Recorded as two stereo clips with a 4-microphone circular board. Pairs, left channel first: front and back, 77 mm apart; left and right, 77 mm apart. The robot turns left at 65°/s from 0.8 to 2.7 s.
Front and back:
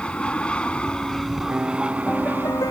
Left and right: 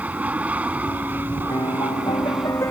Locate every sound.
0.0 s an aircraft: 55° right; by 2.7 s straight behind
1.5 s a piano: 115° left; by 2.7 s 35° left